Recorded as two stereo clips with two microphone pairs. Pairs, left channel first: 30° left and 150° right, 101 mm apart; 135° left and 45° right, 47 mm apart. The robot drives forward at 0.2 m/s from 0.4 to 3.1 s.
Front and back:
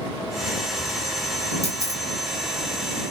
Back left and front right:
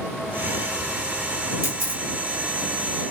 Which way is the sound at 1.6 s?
155° left.